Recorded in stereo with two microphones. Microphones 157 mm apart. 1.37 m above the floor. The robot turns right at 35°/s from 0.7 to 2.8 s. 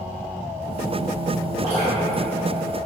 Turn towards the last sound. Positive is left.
turn(degrees=-60)  # may be behind; listen again after turning